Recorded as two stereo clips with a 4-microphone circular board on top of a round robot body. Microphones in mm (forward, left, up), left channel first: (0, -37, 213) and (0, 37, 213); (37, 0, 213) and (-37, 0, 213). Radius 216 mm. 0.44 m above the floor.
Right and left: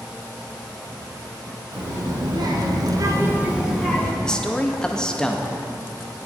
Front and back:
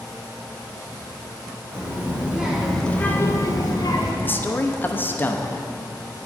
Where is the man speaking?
20° right, 0.9 m.